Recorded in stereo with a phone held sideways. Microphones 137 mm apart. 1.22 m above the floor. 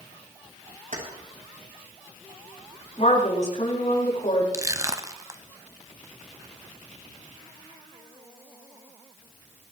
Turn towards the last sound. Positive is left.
turn(degrees=-25)  # may be behind; listen again after turning